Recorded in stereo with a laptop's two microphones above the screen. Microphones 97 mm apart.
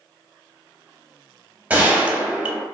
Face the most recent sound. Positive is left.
turn(degrees=-15)  # may be behind; listen again after turning